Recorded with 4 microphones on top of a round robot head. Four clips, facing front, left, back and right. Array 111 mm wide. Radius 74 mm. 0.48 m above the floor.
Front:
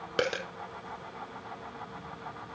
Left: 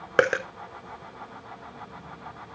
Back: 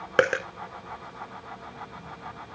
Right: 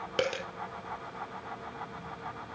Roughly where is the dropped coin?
Behind left.